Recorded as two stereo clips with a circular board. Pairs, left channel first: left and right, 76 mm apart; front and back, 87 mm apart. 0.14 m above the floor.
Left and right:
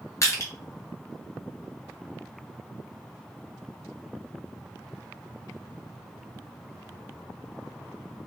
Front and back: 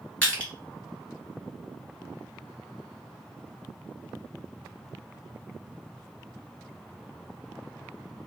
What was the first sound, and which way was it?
Crushing, 70° left.